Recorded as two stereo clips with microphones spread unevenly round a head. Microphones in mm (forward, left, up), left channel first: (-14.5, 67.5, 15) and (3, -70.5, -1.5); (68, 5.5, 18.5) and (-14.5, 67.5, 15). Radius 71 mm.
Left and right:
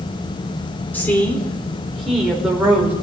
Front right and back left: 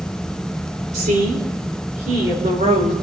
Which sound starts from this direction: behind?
A woman speaking, at 0.9 s.